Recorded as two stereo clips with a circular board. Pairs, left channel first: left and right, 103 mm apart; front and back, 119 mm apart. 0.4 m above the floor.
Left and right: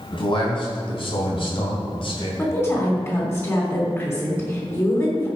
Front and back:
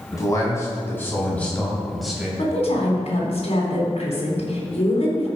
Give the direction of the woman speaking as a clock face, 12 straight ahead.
11 o'clock.